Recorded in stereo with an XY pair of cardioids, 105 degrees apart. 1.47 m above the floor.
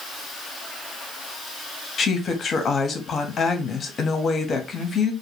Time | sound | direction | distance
2.0 | a woman speaking | 45° left | 0.9 m